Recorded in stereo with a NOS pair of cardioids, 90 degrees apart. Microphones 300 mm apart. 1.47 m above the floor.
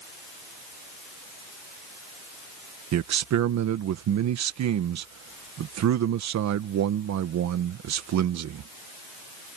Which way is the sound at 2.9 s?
65° right.